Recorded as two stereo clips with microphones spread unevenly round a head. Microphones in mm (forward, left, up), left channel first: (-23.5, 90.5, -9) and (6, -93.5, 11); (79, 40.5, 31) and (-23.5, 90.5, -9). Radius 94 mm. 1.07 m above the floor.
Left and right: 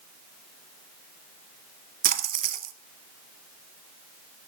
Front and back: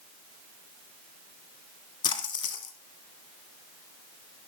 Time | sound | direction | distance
2.0 | a splash | 50° right | 1.5 m